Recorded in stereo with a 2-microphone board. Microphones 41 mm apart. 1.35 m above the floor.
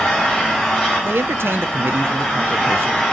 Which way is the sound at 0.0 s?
15° left (ahead or behind).